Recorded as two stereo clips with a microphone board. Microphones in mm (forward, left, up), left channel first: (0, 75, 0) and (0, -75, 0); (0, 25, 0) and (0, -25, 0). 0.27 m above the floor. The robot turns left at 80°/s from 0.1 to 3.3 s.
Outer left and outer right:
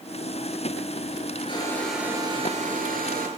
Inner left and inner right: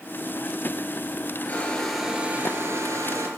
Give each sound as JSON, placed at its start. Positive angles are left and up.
{"t": 1.5, "sound": "a hair dryer", "azimuth_deg": 35, "distance_m": 3.0}